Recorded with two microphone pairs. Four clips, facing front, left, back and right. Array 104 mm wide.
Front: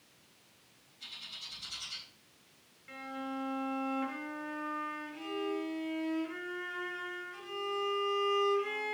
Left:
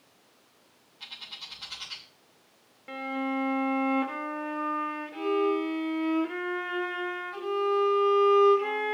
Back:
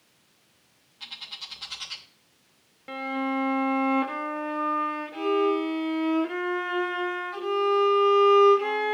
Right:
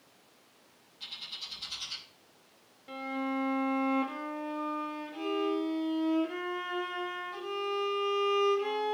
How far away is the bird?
About 2.5 m.